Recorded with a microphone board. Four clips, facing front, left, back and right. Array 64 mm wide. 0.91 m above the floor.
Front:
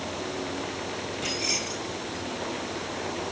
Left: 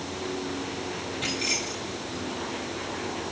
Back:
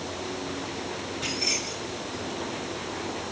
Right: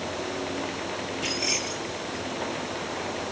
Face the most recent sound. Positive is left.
turn(degrees=90)